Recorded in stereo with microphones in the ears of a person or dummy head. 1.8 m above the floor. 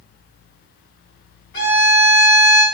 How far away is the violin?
About 1.6 m.